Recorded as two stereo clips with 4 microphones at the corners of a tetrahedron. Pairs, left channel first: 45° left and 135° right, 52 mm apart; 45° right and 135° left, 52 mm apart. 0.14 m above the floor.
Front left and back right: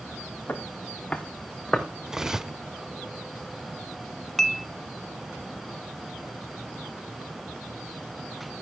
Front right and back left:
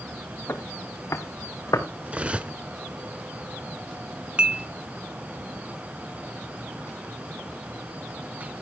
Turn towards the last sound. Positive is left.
turn(degrees=115)